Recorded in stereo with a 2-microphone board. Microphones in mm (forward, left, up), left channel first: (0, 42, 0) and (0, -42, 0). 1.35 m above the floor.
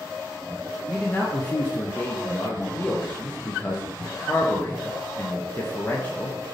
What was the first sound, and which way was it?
A man speaking, 25° left (ahead or behind).